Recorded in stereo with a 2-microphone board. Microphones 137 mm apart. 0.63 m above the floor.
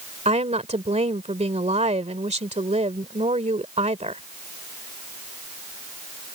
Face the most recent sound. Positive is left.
turn(degrees=-55)  # may be behind; listen again after turning